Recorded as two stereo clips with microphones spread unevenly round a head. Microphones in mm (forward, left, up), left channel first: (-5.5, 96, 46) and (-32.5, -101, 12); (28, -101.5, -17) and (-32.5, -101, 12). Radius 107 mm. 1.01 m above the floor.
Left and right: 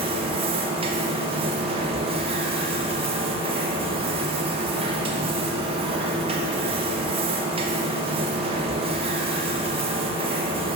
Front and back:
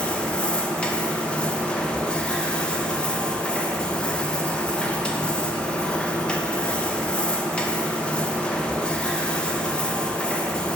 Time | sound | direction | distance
0.0 | a machine running | 50° right | 1.0 m